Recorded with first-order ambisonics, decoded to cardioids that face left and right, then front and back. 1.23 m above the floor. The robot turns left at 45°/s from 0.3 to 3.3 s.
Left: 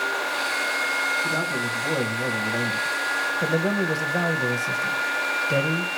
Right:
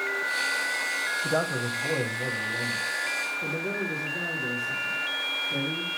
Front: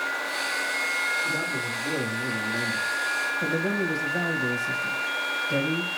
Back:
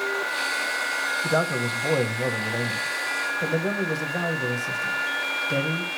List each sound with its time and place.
1.2 s a man speaking: 160° right, 1.0 m; by 5.9 s 105° left, 1.0 m